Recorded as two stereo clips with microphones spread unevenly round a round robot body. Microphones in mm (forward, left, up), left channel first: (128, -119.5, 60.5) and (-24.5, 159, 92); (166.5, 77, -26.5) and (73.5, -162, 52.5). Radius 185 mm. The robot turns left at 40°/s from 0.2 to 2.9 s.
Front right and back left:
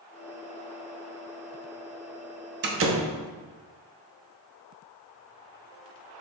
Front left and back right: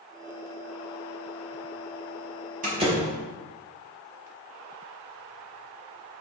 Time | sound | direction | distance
2.6 | a door slam | 175° left | 0.9 m